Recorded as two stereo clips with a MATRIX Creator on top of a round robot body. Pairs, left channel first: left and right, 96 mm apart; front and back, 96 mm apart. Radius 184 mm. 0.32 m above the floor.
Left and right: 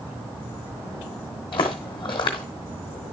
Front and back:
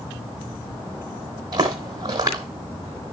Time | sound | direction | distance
1.5 | footsteps | 130° left | 0.7 m